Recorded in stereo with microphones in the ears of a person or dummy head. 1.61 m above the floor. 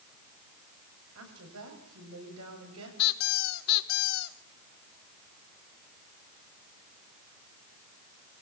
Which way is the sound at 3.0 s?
60° left (ahead or behind).